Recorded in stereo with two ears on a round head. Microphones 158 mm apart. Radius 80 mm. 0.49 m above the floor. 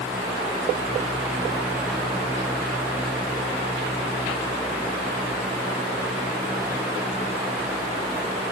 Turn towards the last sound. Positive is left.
No sound to turn to.